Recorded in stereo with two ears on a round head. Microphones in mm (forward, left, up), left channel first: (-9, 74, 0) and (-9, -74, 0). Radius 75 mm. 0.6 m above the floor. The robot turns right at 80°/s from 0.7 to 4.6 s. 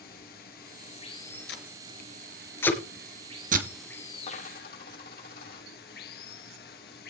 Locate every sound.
0.0 s running water: 115° left, 4 m; by 7.1 s 65° left, 4 m
1.5 s tape being pulled: 75° left (ahead or behind), 2.5 m; by 3.7 s 65° right (ahead or behind), 2.5 m
4.3 s a dropped coin: 35° left (ahead or behind), 6.5 m; by 5.7 s 60° left (ahead or behind), 6.5 m